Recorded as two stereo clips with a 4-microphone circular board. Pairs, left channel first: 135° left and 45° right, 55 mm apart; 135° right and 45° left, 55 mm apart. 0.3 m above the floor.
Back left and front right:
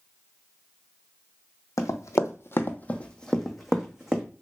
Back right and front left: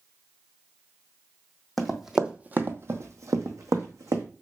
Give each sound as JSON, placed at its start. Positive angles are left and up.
{"t": 1.8, "sound": "running footsteps", "azimuth_deg": 140, "distance_m": 0.7}